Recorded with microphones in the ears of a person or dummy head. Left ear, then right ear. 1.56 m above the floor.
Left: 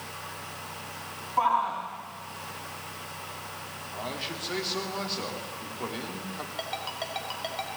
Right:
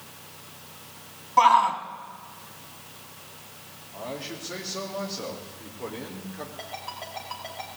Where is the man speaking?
35° left (ahead or behind), 4 m.